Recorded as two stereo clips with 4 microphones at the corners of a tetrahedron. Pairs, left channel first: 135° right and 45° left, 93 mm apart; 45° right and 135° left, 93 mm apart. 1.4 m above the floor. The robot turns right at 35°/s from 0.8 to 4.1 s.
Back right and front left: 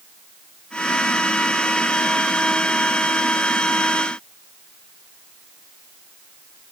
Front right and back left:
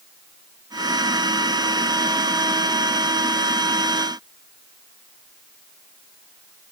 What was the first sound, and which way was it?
Only background noise.